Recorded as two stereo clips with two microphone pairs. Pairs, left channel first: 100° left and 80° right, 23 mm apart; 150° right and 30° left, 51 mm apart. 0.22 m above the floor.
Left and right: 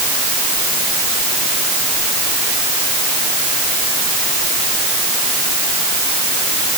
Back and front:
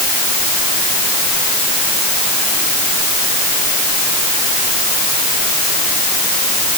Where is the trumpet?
I don't hear a trumpet.